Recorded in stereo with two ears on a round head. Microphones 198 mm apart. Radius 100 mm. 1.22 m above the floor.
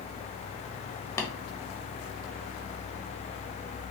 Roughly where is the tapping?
Centre.